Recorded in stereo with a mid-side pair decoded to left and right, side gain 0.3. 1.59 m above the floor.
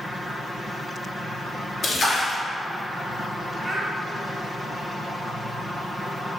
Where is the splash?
70° left, 0.7 m.